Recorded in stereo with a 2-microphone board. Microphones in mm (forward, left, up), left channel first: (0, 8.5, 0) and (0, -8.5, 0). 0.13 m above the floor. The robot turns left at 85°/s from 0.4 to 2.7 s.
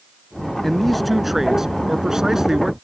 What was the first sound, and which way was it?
A man speaking, 35° left.